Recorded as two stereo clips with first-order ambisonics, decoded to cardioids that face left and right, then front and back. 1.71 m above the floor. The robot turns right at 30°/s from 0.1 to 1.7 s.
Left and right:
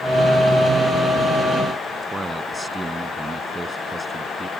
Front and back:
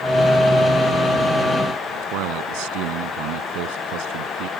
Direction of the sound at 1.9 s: 170° right.